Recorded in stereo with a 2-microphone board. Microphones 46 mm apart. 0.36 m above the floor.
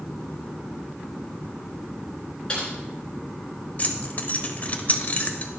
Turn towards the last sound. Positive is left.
turn(degrees=35)  # may be behind; listen again after turning